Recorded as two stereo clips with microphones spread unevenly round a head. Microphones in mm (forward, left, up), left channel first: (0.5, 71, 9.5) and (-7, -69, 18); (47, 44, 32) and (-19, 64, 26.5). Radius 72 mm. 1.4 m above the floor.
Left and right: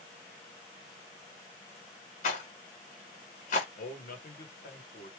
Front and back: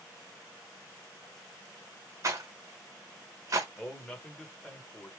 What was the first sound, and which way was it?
A rattle, 125° left.